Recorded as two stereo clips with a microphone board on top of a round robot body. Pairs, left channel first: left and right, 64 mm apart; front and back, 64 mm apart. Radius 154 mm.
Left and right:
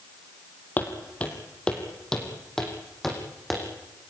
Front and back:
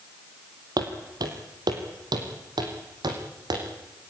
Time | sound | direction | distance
0.8 | footsteps | 155° left | 2 m